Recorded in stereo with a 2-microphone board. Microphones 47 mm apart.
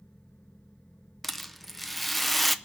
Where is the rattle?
Centre (ahead or behind), 0.5 m.